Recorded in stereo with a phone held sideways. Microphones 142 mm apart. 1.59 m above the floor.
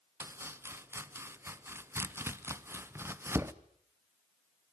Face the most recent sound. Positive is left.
turn(degrees=-15)  # may be behind; listen again after turning